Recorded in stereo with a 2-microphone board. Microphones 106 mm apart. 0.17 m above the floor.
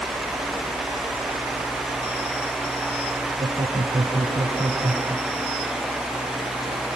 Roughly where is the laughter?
Right.